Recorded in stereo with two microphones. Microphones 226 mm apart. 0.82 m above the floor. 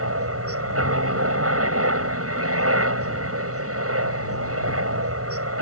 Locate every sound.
0.0 s a helicopter: 75° right (ahead or behind)